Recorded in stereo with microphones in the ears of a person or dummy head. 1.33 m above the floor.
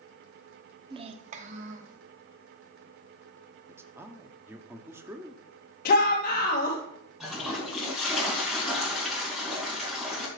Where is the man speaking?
10° right (ahead or behind), 0.6 m.